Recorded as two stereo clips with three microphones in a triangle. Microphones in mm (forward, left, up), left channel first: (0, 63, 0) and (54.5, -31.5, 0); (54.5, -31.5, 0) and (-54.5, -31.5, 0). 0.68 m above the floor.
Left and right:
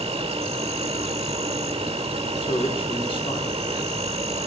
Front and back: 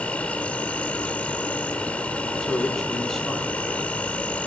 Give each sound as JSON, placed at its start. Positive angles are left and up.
{"t": 0.0, "sound": "an insect", "azimuth_deg": -75, "distance_m": 1.4}
{"t": 2.4, "sound": "a man speaking", "azimuth_deg": 90, "distance_m": 6.0}